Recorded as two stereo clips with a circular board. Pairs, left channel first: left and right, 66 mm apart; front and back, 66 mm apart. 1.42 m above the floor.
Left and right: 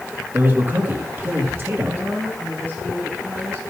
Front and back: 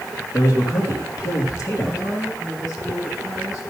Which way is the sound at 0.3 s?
30° right.